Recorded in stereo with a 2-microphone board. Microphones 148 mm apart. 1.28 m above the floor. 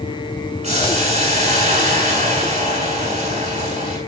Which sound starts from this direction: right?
Boiling, at 0.6 s.